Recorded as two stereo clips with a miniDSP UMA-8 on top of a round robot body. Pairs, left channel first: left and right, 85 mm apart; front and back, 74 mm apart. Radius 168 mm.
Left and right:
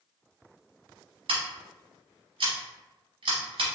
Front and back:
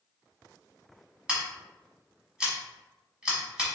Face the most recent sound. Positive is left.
turn(degrees=-100)